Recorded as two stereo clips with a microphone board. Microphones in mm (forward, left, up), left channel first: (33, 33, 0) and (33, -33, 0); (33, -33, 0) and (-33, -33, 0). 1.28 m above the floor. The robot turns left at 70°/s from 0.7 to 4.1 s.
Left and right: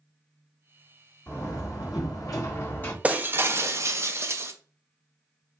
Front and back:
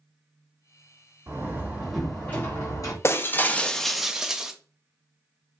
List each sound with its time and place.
1.3 s a door slam: 140° left, 2 m; by 2.9 s 25° left, 2 m
3.0 s breaking glass: 30° right, 0.5 m; by 4.5 s 105° right, 0.5 m